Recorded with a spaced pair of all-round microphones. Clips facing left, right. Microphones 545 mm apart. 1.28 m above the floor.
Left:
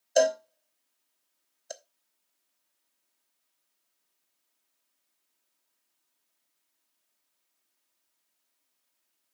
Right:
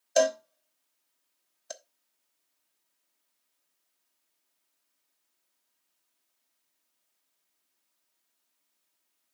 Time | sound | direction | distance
0.2 | a cowbell | 30° right (ahead or behind) | 0.7 m